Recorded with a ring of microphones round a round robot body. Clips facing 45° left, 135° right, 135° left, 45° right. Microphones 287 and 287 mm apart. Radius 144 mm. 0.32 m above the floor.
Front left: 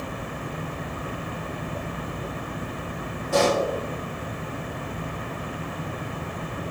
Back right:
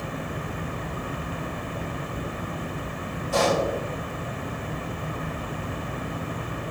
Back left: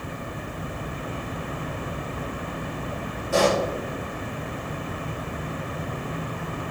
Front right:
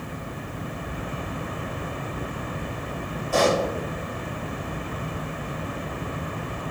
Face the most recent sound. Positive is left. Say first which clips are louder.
# front left 2 dB, even
turn(degrees=70)